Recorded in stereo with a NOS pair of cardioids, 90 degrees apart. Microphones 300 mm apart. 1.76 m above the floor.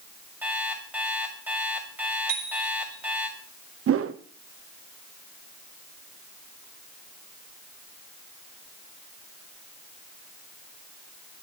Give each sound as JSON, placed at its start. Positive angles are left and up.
{"t": 0.4, "sound": "an alarm clock", "azimuth_deg": -5, "distance_m": 5.5}
{"t": 2.3, "sound": "a bicycle bell", "azimuth_deg": -60, "distance_m": 5.5}
{"t": 3.9, "sound": "a whoosh", "azimuth_deg": -50, "distance_m": 1.2}